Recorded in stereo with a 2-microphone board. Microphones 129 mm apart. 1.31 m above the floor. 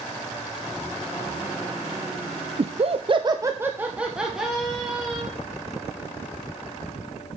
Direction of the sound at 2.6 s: 50° right (ahead or behind).